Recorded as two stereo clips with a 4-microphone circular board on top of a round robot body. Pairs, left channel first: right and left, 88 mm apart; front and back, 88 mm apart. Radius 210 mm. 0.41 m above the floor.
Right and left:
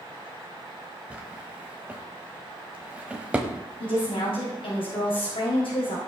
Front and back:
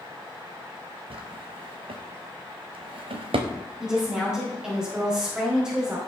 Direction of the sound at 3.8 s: 100° right.